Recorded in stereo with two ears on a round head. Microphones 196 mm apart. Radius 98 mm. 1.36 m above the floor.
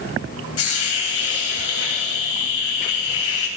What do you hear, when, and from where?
0.6 s a hiss: 70° left (ahead or behind), 3.5 m